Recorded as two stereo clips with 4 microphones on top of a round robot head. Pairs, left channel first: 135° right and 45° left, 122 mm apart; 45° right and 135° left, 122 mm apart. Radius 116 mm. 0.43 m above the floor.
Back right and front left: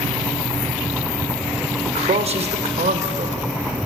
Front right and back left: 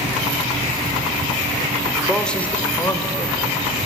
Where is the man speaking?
50° left, 1.5 m; by 3.4 s 20° left, 3 m.